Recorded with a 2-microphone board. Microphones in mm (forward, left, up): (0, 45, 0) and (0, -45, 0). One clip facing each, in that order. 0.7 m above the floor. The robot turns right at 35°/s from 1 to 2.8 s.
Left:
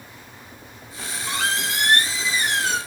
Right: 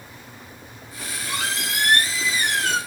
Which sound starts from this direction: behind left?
A squeak, at 1.0 s.